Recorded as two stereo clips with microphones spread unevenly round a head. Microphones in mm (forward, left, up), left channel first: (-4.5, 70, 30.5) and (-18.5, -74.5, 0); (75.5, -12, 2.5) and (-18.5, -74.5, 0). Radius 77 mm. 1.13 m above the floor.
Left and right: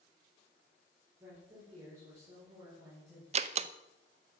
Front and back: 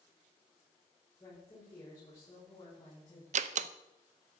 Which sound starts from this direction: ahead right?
A woman speaking, at 1.2 s.